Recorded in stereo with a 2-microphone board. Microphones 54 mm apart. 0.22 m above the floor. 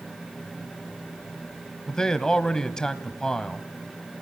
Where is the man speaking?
10° left (ahead or behind), 1.0 m.